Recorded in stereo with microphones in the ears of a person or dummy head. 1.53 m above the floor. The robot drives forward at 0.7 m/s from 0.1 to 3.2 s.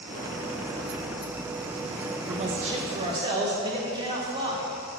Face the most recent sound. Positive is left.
turn(degrees=-30)  # may be behind; listen again after turning